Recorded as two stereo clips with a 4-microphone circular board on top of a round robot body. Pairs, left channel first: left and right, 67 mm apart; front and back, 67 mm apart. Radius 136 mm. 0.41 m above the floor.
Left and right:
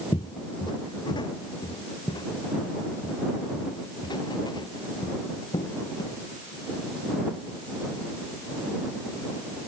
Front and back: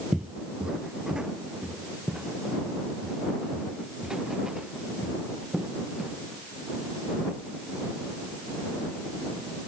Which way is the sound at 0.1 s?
105° left.